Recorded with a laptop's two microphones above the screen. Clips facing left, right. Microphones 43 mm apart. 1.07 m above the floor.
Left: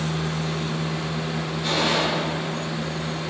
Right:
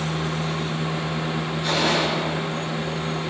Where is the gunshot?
Centre (ahead or behind), 2 m.